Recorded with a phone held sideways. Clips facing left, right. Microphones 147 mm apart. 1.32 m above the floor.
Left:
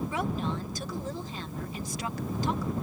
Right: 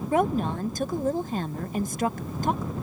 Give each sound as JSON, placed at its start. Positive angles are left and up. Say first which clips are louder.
{"t": 0.1, "sound": "a woman speaking", "louder": "right 7 dB", "side_deg": -50}